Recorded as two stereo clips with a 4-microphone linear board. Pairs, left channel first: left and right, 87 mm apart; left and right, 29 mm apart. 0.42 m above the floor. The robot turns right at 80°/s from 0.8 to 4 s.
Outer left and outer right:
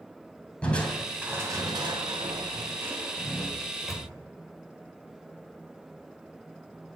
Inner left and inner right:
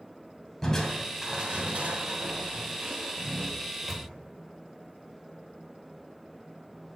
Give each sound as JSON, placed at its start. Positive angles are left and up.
{"t": 0.6, "sound": "crushing", "azimuth_deg": 165, "distance_m": 2.5}
{"t": 3.6, "sound": "a microwave", "side_deg": 20, "distance_m": 1.6}